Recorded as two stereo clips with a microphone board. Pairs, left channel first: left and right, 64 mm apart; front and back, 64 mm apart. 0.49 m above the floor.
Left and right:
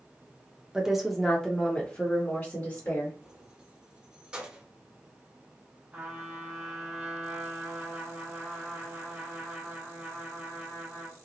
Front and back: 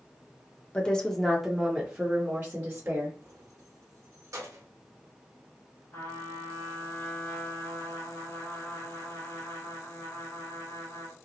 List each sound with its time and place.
0.7 s a woman speaking: 30° right, 0.7 m; by 3.2 s 130° left, 1.3 m
3.2 s keys jangling: 160° right, 0.8 m
5.9 s a trumpet: 20° right, 1.8 m